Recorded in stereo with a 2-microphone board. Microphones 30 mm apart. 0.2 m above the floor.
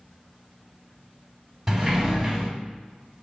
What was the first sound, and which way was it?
A sliding door, 10° right (ahead or behind).